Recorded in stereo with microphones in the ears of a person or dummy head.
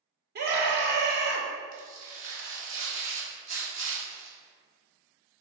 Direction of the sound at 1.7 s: 80° right.